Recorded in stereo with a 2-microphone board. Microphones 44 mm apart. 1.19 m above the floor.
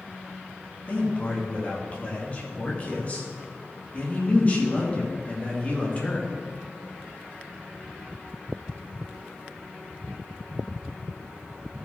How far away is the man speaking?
About 1.9 m.